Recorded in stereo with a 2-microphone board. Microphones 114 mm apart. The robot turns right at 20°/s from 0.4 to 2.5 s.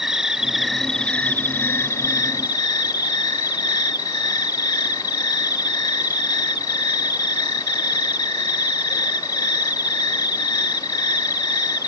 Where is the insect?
5° right; by 11.9 s 35° left.